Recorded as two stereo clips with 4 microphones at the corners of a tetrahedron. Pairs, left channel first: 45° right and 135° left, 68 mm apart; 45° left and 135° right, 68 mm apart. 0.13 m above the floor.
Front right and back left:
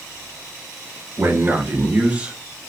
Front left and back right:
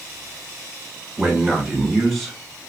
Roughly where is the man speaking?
Behind left.